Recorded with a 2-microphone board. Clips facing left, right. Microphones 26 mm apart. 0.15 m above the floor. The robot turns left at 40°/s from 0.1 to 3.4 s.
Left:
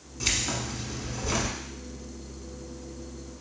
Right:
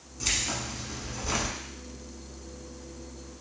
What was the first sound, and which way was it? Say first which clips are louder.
Keys jangling: left 1 dB; 35° left.